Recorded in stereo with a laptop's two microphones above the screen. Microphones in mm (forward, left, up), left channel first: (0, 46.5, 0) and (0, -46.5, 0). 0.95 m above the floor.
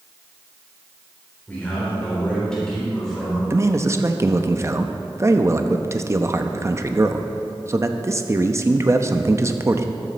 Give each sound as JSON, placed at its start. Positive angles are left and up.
{"t": 1.5, "sound": "a man speaking", "side_deg": 20, "distance_m": 3.5}
{"t": 3.5, "sound": "a man speaking", "side_deg": -30, "distance_m": 0.8}